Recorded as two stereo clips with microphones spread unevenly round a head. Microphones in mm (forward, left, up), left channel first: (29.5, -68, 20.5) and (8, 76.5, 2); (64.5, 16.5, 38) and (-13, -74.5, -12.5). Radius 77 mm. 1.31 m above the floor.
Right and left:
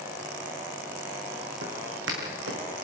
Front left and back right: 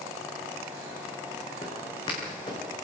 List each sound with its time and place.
1.6 s footsteps: 105° left, 5.5 m